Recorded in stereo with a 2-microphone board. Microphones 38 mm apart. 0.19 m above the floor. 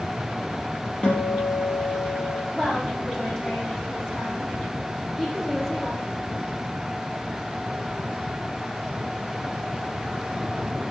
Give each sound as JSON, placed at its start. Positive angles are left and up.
{"t": 1.0, "sound": "a guitar", "side_deg": 30, "distance_m": 4.0}
{"t": 2.5, "sound": "a woman speaking", "side_deg": 10, "distance_m": 8.0}